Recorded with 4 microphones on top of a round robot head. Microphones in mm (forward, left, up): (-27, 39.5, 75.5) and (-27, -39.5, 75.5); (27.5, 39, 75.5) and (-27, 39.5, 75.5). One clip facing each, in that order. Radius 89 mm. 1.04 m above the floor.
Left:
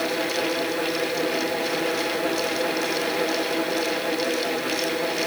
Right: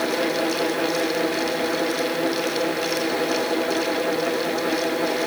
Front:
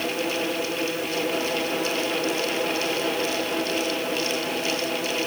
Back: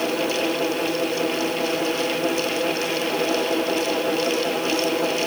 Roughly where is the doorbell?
I don't hear a doorbell.